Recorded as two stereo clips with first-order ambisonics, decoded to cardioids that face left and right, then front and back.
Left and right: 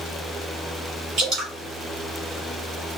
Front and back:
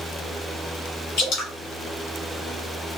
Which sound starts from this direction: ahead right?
Dripping, at 1.2 s.